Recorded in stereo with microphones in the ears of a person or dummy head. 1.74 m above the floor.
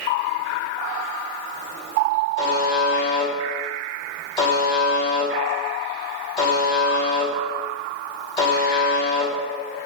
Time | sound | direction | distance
2.4 | a buzzer | 25° left (ahead or behind) | 0.9 m